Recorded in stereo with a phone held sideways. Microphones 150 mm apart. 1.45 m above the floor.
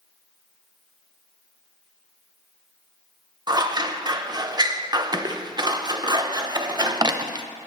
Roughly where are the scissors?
Right.